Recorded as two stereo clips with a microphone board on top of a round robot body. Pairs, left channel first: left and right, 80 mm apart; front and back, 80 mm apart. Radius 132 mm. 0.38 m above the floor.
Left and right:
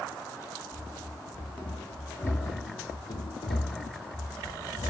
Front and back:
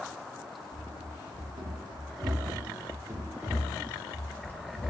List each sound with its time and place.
0.7 s running footsteps: 175° left, 1.6 m; by 4.9 s 60° left, 1.2 m